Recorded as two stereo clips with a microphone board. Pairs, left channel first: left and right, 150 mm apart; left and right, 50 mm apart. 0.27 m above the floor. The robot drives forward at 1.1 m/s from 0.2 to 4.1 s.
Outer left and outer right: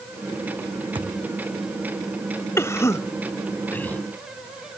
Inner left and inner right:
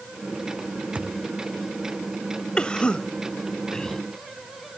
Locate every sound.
0.9 s a thud: 30° right (ahead or behind); by 1.3 s 35° right (ahead or behind)
2.6 s a cough: 15° left (ahead or behind); by 4.0 s 10° left (ahead or behind)